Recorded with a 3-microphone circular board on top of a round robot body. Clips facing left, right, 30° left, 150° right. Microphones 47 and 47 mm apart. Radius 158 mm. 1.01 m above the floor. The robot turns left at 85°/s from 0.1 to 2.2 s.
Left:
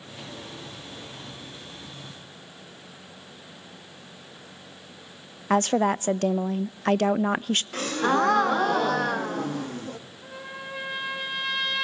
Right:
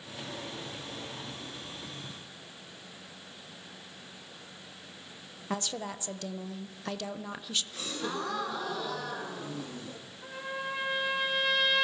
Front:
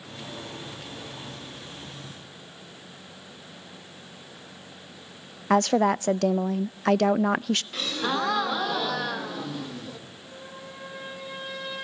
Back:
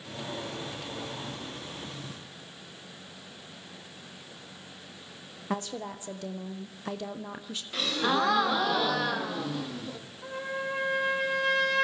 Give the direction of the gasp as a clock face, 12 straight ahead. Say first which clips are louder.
Left 15 dB, back 1 dB; 8 o'clock.